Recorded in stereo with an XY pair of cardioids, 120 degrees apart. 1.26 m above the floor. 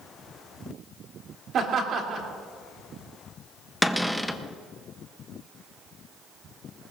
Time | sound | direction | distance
1.5 | laughter | 55° right | 3 m
3.8 | a cupboard door | straight ahead | 0.8 m